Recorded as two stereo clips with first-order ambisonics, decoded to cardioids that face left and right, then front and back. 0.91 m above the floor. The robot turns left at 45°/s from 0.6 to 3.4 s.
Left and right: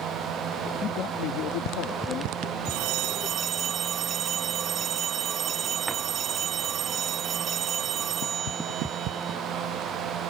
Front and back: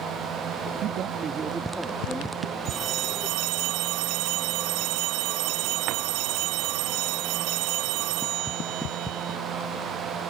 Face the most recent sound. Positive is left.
turn(degrees=-155)